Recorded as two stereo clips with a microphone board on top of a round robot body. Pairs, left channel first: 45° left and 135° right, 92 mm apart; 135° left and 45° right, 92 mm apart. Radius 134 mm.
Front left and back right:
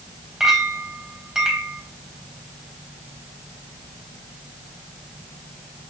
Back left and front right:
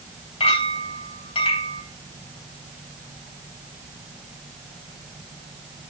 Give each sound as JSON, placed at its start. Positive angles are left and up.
{"t": 0.4, "sound": "a clink", "azimuth_deg": 140, "distance_m": 3.5}